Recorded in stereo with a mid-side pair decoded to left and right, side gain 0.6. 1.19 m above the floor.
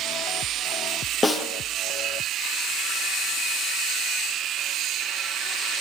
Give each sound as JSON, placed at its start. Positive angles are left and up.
{"t": 1.2, "sound": "a snare drum", "azimuth_deg": 25, "distance_m": 5.0}